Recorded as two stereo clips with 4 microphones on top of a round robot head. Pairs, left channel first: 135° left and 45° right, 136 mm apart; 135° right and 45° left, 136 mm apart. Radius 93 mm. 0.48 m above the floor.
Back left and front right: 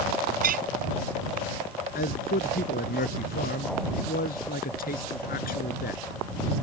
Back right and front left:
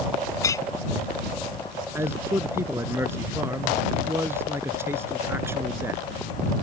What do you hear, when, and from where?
0.4 s a clink: 65° right
1.9 s a man speaking: 120° left